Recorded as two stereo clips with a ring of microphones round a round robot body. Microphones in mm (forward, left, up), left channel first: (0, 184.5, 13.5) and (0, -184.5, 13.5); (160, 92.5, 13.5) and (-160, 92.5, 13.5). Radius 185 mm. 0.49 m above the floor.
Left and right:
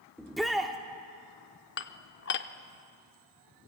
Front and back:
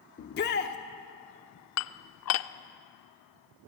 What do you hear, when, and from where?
0.2 s a shout: straight ahead, 0.8 m
1.8 s dishes clattering: 35° left, 0.6 m